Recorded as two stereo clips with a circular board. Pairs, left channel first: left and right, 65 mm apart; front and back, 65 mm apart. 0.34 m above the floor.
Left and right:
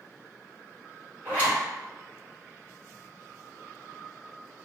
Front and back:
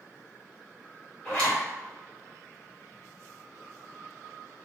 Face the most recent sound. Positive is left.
turn(degrees=-65)